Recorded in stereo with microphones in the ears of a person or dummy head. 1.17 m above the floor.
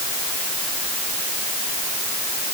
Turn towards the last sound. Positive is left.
No sound to turn to.